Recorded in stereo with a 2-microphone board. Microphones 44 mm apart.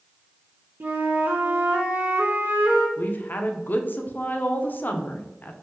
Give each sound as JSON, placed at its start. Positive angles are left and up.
{"t": 0.8, "sound": "a flute", "side_deg": -50, "distance_m": 0.6}
{"t": 3.0, "sound": "a woman speaking", "side_deg": 45, "distance_m": 0.5}